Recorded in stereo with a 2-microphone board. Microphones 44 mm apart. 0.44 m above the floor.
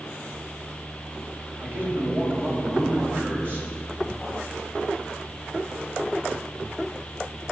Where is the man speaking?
45° right (ahead or behind), 1.8 m.